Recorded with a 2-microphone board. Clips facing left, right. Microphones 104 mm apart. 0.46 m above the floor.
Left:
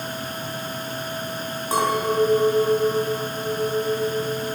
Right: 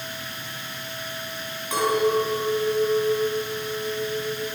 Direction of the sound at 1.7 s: 35° left (ahead or behind).